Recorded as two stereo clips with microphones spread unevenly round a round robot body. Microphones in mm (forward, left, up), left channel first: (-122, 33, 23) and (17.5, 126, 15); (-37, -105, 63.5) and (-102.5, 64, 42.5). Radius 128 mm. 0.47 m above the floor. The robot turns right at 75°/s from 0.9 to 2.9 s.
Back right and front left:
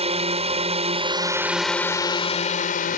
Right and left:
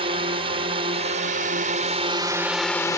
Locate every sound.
0.0 s a drone: 65° left; by 3.0 s 145° right